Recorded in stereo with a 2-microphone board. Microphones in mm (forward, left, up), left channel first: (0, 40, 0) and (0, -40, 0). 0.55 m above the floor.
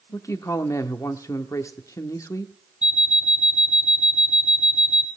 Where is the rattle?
I don't hear a rattle.